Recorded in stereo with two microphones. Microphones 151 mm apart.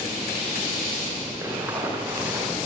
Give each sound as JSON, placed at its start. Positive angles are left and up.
{"t": 1.4, "sound": "running footsteps", "side_deg": -15, "distance_m": 7.0}